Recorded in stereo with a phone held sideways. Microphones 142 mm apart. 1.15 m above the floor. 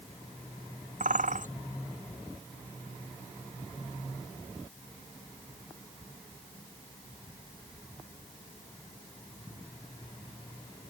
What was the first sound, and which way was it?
A bird, 70° right (ahead or behind).